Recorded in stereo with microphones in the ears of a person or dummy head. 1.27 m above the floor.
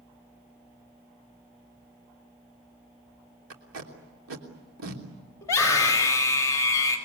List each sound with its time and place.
3.5 s tape being pulled: 70° right (ahead or behind), 3 m
5.4 s a scream: 15° left (ahead or behind), 6 m